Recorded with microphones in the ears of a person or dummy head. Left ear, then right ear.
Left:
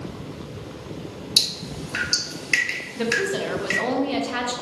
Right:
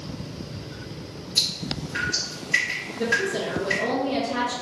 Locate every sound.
1.4 s dripping: 70° left (ahead or behind), 1.6 m
3.0 s a woman speaking: 45° left (ahead or behind), 0.6 m